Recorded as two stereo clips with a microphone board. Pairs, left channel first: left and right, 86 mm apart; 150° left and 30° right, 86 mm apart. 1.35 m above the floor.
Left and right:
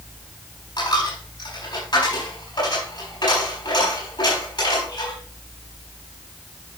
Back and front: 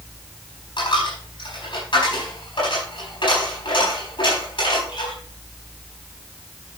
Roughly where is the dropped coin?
Behind left.